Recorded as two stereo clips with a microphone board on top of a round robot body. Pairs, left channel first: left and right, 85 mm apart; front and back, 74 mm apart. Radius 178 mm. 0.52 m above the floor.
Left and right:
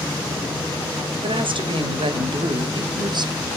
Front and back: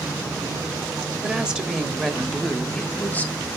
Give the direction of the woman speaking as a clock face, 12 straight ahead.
4 o'clock.